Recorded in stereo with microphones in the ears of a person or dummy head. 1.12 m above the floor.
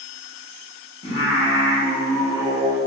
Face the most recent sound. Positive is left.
turn(degrees=30)  # may be behind; listen again after turning